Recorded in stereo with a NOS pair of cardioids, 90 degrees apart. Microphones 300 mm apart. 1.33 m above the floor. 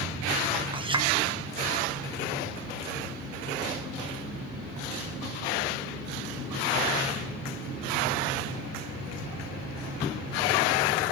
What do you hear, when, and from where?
0.7 s a clink: 15° right, 1.0 m